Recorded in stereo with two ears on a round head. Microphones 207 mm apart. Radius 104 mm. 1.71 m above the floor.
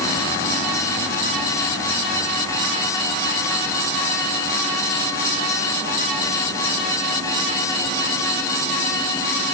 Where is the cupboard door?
No cupboard door in this recording.